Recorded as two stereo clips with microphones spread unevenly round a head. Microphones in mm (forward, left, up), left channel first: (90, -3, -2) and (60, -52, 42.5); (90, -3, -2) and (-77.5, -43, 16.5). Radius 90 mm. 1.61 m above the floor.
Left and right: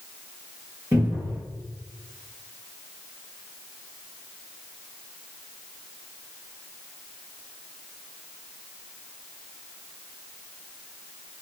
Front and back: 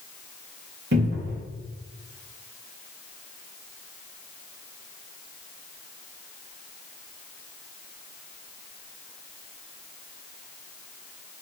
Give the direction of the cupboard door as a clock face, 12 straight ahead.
5 o'clock.